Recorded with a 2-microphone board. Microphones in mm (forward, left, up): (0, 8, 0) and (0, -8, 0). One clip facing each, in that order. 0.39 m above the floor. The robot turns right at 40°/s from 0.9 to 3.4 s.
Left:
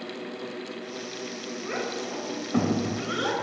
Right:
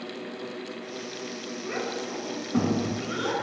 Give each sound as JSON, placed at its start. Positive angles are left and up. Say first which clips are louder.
{"t": 1.6, "sound": "a child speaking", "louder": "even", "side_deg": 30, "distance_m": 1.2}